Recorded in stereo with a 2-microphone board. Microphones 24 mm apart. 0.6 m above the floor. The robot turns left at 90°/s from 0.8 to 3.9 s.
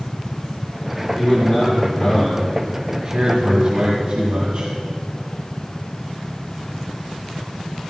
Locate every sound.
1.1 s a man speaking: 140° left, 2.5 m; by 4.7 s 110° right, 2.5 m